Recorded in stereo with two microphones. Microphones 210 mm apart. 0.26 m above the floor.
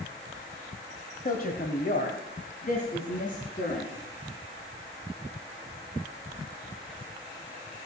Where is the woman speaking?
45° left (ahead or behind), 1.5 m; by 3.9 s 40° left (ahead or behind), 3 m.